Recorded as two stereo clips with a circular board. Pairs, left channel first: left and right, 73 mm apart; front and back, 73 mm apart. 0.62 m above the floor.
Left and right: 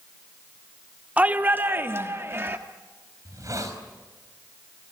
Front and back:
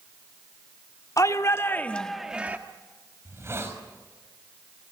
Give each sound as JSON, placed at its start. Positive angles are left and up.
{"t": 1.2, "sound": "a shout", "azimuth_deg": -25, "distance_m": 1.5}
{"t": 3.2, "sound": "a hiss", "azimuth_deg": -130, "distance_m": 4.5}